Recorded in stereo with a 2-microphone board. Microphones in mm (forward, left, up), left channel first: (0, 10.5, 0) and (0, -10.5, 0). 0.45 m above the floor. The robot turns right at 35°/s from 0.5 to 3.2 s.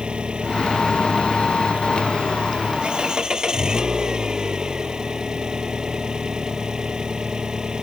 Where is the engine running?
125° right; by 7.8 s 30° right.